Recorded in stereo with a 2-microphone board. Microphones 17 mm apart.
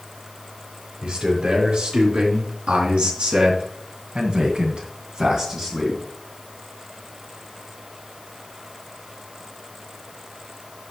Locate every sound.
1.0 s a man speaking: 70° right (ahead or behind), 5 m; by 6.0 s 15° right (ahead or behind), 3 m